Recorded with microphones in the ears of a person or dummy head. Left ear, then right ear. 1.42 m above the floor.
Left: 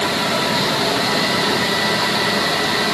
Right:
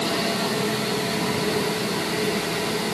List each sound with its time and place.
Only background noise.